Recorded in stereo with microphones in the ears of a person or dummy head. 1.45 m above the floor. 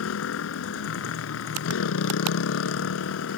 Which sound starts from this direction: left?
A motorcycle, at 0.0 s.